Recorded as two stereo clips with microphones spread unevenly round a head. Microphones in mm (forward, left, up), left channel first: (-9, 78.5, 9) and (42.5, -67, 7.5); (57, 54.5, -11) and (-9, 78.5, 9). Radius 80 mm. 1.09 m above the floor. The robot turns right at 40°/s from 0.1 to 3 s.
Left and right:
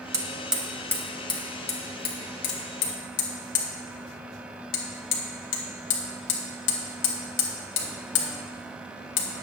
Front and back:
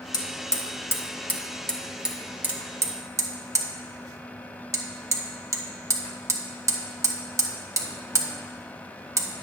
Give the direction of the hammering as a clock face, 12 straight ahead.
12 o'clock.